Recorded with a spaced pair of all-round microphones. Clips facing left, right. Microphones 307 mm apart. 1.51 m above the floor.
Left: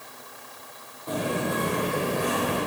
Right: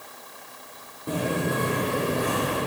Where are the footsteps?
35° right (ahead or behind), 1.8 m; by 2.6 s 20° right (ahead or behind), 3 m.